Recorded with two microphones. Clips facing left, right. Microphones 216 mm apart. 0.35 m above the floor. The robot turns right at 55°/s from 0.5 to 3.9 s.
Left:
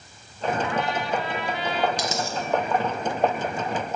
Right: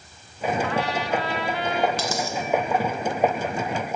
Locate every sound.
0.6 s a trumpet: 110° right, 0.7 m; by 1.9 s 45° right, 0.7 m
2.0 s a dropped coin: 15° left (ahead or behind), 0.8 m; by 2.4 s 35° left (ahead or behind), 0.8 m